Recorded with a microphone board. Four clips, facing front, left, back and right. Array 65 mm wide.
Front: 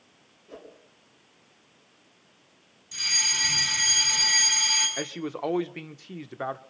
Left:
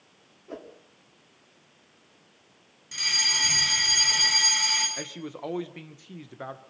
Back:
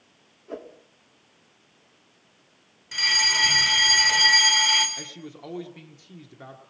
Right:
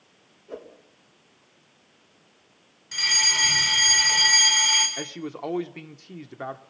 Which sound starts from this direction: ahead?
A man speaking, at 5.0 s.